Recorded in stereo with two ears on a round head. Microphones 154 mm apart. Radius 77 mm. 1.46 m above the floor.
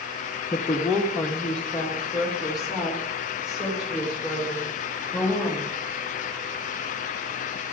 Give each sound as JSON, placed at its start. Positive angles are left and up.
{"t": 0.5, "sound": "a woman speaking", "side_deg": 15, "distance_m": 0.7}